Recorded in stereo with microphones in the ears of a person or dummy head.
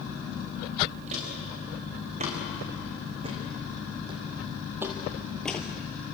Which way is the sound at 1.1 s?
35° right (ahead or behind).